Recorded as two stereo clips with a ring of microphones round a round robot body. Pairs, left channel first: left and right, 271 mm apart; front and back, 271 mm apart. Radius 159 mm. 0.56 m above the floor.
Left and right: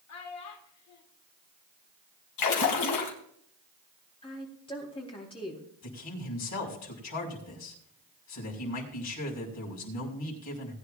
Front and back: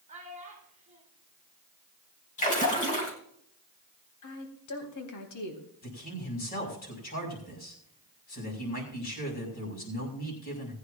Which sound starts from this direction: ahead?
A woman speaking, at 4.2 s.